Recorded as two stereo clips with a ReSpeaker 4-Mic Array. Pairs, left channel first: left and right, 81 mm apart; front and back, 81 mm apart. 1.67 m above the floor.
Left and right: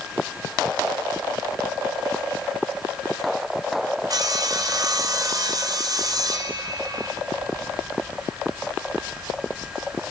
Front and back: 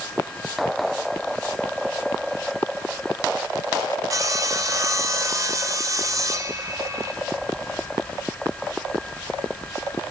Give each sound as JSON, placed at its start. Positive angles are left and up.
{"t": 4.1, "sound": "sawing", "azimuth_deg": -130, "distance_m": 0.8}